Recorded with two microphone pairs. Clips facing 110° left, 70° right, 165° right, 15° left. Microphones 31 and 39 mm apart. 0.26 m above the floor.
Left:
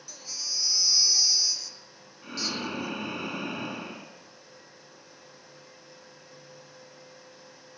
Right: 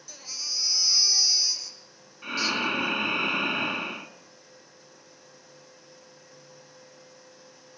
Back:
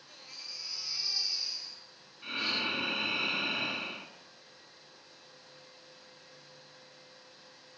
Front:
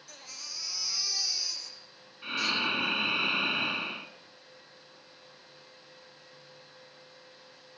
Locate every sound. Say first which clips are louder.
0.1 s a baby crying: right 1 dB, front 2 dB; 15° left, 5 m
2.2 s breathing: right 6 dB, front 3 dB; 50° right, 1.8 m